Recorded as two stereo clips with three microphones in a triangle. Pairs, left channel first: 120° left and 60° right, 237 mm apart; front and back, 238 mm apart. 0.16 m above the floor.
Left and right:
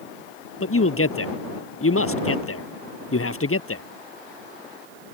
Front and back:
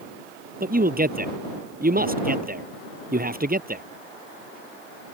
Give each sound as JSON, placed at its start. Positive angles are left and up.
{"t": 0.6, "sound": "a man speaking", "azimuth_deg": 130}